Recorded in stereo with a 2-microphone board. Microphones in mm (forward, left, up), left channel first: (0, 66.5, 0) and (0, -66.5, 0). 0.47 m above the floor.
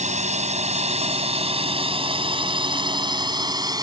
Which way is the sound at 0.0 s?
60° right (ahead or behind).